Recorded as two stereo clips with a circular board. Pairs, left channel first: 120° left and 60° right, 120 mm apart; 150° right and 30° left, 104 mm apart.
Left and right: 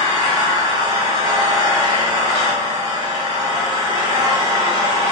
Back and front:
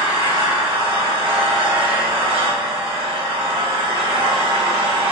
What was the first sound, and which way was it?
An engine running, 5° right.